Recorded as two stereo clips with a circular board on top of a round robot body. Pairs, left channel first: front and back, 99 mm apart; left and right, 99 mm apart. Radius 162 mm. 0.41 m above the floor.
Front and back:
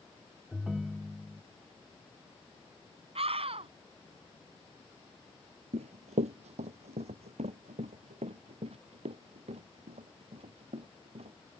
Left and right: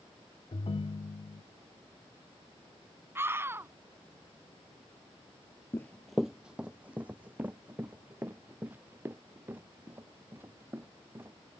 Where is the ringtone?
95° left.